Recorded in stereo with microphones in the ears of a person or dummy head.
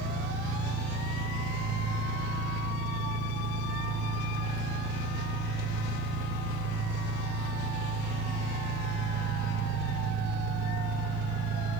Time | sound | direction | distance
0.0 | an engine running | 50° right (ahead or behind) | 2.5 m